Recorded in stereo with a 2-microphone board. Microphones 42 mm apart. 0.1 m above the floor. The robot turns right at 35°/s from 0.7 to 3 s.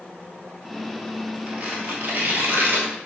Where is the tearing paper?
35° right (ahead or behind), 1.0 m; by 3.1 s 55° right (ahead or behind), 1.0 m.